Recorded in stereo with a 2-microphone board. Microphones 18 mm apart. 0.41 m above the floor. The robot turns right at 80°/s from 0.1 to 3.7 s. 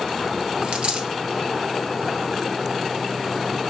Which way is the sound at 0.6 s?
70° right (ahead or behind).